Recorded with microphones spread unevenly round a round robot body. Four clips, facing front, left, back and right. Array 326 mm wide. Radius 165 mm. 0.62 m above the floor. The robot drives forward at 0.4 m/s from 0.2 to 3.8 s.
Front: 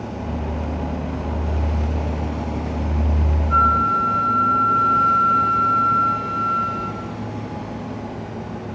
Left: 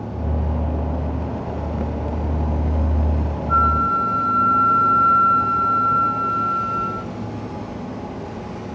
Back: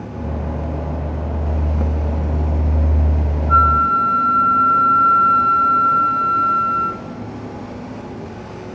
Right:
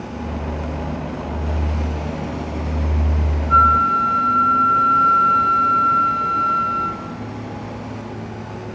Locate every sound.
3.5 s a flute: 175° left, 1.3 m